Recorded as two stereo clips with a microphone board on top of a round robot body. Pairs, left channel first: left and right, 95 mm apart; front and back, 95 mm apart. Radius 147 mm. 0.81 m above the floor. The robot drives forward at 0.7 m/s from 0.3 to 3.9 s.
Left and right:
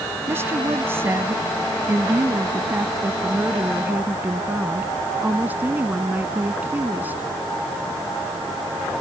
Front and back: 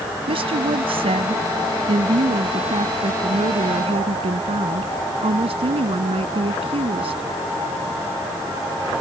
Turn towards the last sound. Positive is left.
turn(degrees=-160)